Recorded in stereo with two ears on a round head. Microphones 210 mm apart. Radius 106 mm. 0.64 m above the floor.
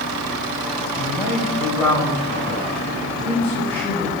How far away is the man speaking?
About 3.5 m.